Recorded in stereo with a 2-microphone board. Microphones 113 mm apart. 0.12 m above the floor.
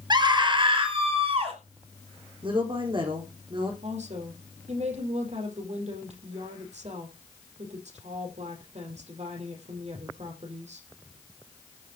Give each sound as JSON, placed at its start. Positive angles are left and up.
{"t": 0.1, "sound": "a scream", "side_deg": -35, "distance_m": 2.5}
{"t": 2.4, "sound": "a woman speaking", "side_deg": -45, "distance_m": 5.0}
{"t": 3.8, "sound": "a woman speaking", "side_deg": -65, "distance_m": 4.5}